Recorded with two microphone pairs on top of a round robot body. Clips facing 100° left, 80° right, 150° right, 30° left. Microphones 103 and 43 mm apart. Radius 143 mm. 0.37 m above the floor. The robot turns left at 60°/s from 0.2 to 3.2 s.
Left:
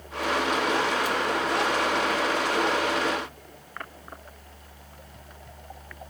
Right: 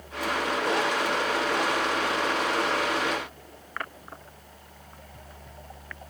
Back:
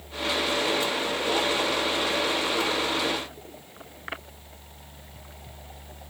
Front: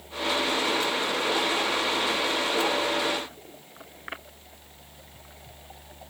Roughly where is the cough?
No cough in this recording.